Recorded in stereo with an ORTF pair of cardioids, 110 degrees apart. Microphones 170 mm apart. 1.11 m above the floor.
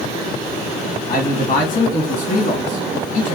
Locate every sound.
1.1 s a man speaking: 50° left, 1.4 m